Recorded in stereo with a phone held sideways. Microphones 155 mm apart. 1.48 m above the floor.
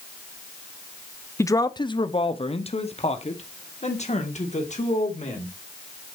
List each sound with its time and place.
1.4 s a man speaking: 20° left (ahead or behind), 0.5 m; by 5.5 s 50° left (ahead or behind), 2.5 m